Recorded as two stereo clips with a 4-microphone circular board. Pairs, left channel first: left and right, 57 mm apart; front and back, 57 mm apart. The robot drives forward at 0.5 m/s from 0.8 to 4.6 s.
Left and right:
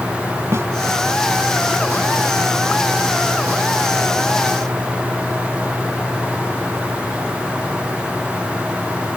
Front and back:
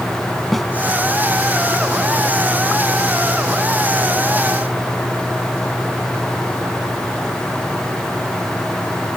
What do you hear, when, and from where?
0.5 s a snare drum: 90° right